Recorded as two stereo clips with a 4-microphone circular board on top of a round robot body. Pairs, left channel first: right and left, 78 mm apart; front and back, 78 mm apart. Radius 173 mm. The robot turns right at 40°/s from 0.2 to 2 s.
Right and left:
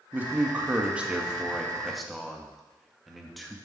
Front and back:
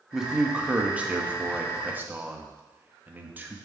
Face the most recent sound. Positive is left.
turn(degrees=180)